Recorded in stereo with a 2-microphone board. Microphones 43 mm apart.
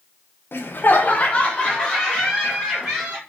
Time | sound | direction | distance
0.5 | laughter | 55° left (ahead or behind) | 0.6 m